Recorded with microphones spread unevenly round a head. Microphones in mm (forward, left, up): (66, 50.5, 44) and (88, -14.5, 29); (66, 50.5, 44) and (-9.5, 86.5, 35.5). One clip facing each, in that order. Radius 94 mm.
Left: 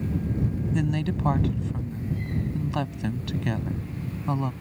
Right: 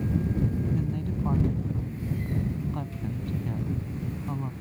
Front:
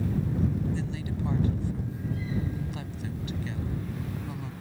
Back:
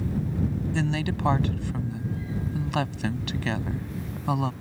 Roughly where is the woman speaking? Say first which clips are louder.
Left 4 dB, back 6 dB; behind left.